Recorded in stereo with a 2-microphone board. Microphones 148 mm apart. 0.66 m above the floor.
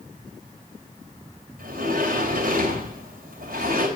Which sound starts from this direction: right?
A sliding door, at 1.6 s.